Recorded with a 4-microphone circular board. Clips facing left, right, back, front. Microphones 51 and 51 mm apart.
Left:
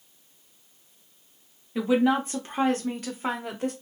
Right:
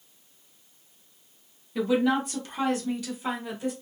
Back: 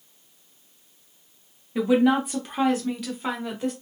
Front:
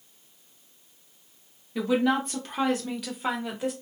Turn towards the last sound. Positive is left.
turn(degrees=80)